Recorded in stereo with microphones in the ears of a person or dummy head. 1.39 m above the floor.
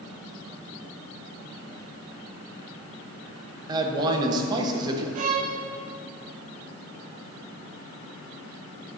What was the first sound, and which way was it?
A man speaking, 25° right (ahead or behind).